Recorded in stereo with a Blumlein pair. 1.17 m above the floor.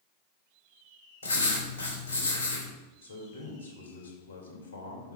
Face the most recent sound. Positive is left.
turn(degrees=65)